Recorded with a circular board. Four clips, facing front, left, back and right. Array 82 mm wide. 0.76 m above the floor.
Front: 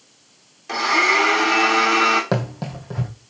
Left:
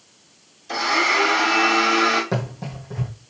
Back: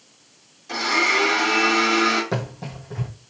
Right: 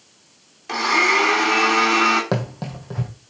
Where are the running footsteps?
40° right, 1.4 m.